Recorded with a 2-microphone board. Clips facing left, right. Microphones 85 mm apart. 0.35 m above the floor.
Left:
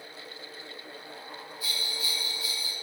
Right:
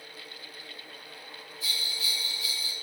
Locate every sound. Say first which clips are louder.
1.6 s a bell: even; centre (ahead or behind), 2 m